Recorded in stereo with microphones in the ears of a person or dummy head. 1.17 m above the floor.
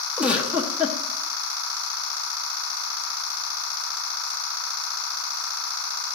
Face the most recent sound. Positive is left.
turn(degrees=-10)  # may be behind; listen again after turning